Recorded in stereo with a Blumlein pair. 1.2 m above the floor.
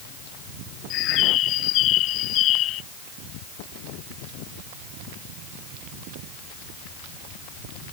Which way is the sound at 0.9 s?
35° left.